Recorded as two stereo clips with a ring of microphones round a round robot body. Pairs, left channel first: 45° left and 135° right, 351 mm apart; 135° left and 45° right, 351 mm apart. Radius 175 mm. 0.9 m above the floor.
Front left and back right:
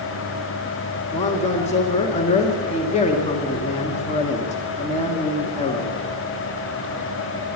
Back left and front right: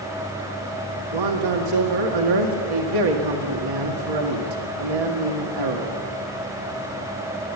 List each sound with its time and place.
1.1 s a man speaking: 25° right, 2.0 m